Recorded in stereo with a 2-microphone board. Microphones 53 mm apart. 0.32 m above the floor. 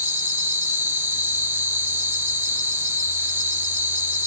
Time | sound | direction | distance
0.0 | an insect | 45° right (ahead or behind) | 0.7 m